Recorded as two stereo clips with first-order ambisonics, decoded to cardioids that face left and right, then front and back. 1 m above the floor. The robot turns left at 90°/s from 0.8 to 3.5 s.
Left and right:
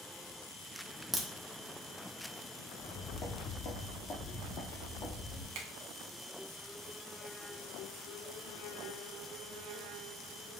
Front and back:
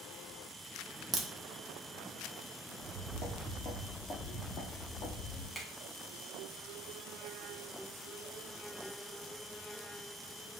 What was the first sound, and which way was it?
A crack, 155° right.